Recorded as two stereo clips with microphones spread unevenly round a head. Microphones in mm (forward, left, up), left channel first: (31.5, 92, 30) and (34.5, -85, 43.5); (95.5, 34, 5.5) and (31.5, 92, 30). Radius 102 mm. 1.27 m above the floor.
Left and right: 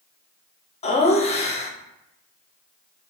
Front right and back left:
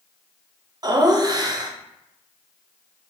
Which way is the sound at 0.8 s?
95° left.